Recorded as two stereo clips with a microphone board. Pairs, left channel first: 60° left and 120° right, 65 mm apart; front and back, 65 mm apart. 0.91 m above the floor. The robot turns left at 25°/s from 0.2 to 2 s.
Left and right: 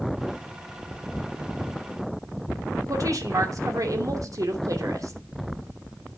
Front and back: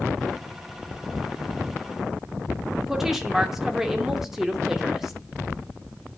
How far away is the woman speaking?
About 2.5 m.